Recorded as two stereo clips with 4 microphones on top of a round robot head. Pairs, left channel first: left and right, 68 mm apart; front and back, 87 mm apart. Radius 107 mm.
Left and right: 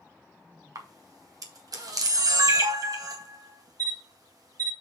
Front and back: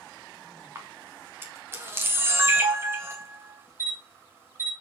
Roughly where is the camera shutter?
Behind right.